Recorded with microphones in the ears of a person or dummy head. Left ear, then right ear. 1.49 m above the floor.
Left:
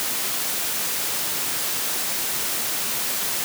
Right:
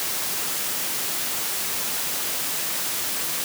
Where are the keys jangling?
I don't hear keys jangling.